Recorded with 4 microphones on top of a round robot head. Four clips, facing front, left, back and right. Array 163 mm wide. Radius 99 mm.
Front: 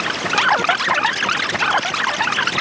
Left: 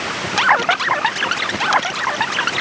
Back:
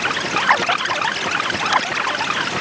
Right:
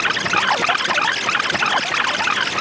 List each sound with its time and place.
Only background noise.